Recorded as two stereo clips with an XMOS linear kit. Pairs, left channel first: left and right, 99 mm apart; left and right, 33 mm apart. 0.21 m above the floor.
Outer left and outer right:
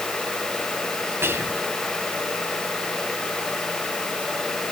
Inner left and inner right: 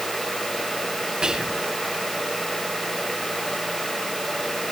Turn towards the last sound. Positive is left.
turn(degrees=-25)  # may be behind; listen again after turning